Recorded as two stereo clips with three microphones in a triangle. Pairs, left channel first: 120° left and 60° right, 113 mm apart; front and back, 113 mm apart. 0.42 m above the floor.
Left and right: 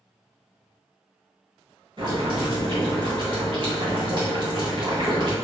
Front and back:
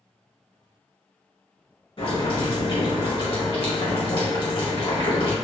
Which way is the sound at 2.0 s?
25° right.